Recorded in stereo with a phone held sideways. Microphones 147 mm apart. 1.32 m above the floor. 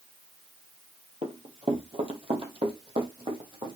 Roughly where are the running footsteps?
Right.